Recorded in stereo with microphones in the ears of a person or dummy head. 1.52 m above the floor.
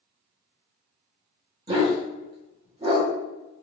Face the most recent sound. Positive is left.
turn(degrees=-25)  # may be behind; listen again after turning